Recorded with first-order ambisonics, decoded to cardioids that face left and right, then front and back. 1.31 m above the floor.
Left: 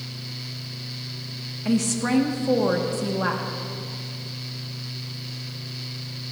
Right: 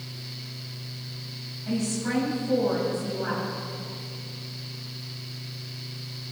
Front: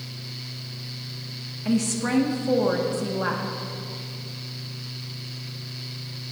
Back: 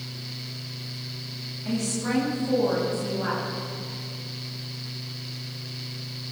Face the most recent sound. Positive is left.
turn(degrees=65)